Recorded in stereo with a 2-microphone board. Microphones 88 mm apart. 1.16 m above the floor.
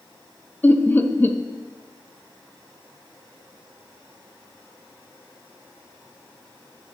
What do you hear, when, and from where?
0.6 s laughter: 20° left (ahead or behind), 0.6 m